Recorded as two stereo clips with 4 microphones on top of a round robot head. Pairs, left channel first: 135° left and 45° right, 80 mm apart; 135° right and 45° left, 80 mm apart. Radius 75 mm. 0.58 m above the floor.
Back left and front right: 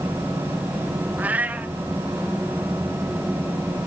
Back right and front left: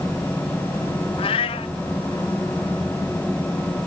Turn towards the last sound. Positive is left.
turn(degrees=-120)